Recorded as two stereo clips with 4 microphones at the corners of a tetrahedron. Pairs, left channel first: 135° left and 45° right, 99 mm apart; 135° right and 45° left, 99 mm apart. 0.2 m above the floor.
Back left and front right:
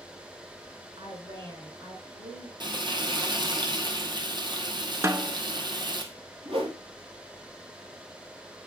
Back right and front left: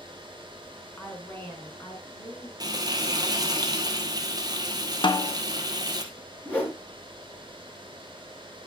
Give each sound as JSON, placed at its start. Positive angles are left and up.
{"t": 1.0, "sound": "a woman speaking", "azimuth_deg": -60, "distance_m": 2.5}
{"t": 2.6, "sound": "frying", "azimuth_deg": -5, "distance_m": 1.5}
{"t": 5.0, "sound": "a snare drum", "azimuth_deg": -105, "distance_m": 0.7}
{"t": 6.5, "sound": "a whoosh", "azimuth_deg": -60, "distance_m": 4.0}